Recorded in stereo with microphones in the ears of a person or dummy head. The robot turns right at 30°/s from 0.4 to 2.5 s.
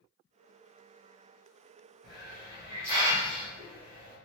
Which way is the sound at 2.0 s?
5° right (ahead or behind).